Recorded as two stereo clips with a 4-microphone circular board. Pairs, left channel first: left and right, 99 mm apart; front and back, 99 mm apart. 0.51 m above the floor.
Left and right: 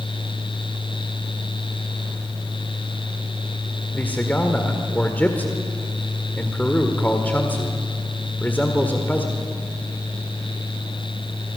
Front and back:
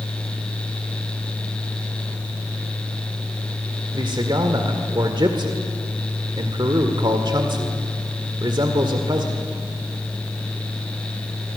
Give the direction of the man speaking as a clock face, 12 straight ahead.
7 o'clock.